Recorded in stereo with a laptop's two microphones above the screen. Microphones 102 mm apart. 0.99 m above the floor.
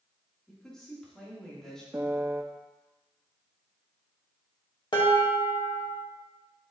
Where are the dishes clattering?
45° left (ahead or behind), 1.7 m.